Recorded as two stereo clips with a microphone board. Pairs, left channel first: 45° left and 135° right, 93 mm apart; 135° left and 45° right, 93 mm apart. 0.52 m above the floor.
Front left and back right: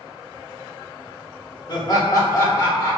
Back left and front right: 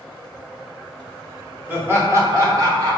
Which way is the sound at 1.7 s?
20° left.